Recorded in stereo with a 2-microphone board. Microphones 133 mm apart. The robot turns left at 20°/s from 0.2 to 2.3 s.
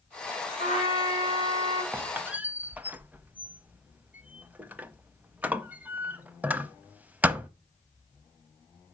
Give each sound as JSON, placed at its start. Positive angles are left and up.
{"t": 0.6, "sound": "a trumpet", "side_deg": -45, "distance_m": 2.0}
{"t": 1.9, "sound": "a squeak", "side_deg": -15, "distance_m": 0.5}